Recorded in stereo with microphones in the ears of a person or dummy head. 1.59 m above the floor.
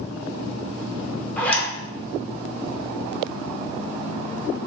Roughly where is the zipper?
Centre.